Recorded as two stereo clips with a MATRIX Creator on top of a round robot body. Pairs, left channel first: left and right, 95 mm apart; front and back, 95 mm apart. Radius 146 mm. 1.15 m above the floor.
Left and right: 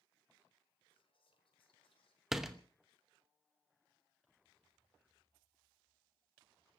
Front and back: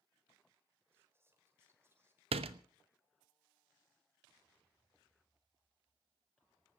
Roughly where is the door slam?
Behind.